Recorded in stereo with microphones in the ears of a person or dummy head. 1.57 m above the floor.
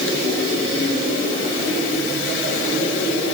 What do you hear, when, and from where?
Only background noise.